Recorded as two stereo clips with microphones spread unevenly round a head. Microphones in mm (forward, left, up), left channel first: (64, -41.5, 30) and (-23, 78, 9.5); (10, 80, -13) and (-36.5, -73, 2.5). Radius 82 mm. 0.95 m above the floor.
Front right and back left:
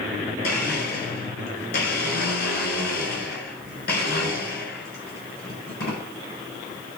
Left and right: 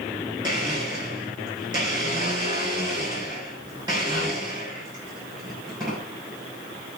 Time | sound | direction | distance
0.4 | a blender | 35° right | 7.5 m